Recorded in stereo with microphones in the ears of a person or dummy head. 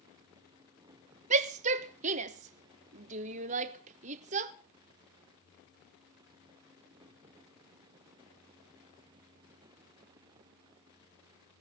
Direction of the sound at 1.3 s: 40° right (ahead or behind).